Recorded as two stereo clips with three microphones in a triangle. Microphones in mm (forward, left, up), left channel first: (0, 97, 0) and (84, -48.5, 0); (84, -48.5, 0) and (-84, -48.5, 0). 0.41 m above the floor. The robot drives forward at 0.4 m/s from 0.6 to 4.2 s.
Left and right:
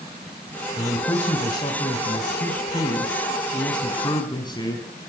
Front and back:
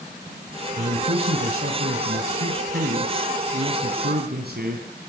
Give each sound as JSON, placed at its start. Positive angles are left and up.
{"t": 0.8, "sound": "a man speaking", "azimuth_deg": -175, "distance_m": 2.5}